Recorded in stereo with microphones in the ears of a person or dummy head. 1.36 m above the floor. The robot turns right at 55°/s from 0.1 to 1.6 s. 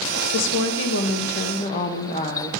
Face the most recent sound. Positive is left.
turn(degrees=140)